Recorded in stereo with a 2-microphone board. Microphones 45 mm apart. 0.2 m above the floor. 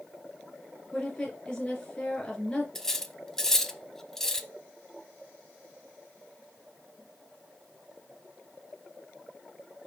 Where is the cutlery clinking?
10° left (ahead or behind), 0.6 m.